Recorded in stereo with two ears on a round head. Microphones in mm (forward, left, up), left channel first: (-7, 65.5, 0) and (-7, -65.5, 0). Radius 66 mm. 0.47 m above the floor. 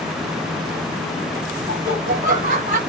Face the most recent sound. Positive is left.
turn(degrees=-60)  # may be behind; listen again after turning